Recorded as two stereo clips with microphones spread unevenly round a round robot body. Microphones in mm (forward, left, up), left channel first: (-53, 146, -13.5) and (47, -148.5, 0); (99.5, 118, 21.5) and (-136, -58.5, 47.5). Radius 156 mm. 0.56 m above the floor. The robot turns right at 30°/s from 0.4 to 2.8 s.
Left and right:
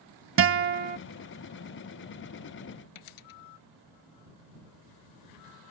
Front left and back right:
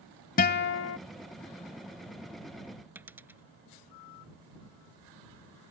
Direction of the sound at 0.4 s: 25° right.